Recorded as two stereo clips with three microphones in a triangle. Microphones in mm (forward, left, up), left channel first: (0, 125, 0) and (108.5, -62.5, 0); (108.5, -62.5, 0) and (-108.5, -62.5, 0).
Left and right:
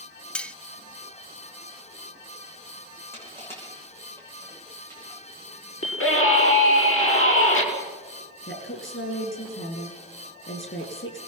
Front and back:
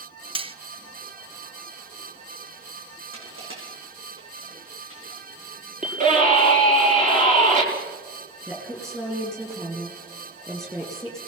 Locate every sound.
0.3 s cutlery clinking: 165° right, 0.5 m
3.1 s crushing: 160° right, 6.5 m
5.8 s a scream: 125° left, 6 m
8.5 s a woman speaking: 100° left, 8 m